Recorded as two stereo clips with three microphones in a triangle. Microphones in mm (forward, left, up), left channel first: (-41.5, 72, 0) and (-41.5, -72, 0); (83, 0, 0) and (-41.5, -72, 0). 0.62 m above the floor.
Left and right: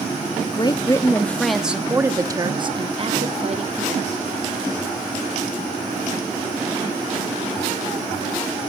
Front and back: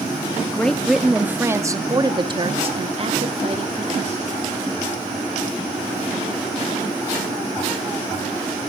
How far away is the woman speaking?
About 0.9 m.